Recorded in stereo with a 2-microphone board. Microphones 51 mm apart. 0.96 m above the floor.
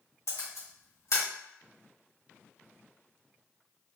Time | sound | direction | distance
0.3 | a camera shutter | 65° left (ahead or behind) | 1.7 m